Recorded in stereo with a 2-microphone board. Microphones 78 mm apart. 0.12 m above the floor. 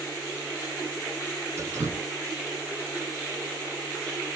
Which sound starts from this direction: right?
Dripping, at 1.6 s.